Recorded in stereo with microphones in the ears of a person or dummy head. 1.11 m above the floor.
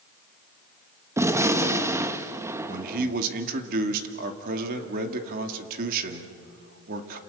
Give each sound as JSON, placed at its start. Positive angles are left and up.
{"t": 1.2, "sound": "a gunshot", "side_deg": -15, "distance_m": 1.1}
{"t": 2.7, "sound": "a man speaking", "side_deg": -50, "distance_m": 2.5}